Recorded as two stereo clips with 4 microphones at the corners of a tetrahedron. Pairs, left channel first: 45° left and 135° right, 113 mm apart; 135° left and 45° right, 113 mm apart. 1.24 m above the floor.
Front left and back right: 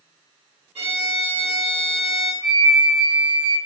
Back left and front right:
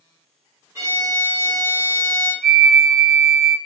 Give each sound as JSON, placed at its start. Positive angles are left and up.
{"t": 0.8, "sound": "a violin", "azimuth_deg": -110, "distance_m": 1.8}
{"t": 2.4, "sound": "a flute", "azimuth_deg": -140, "distance_m": 1.1}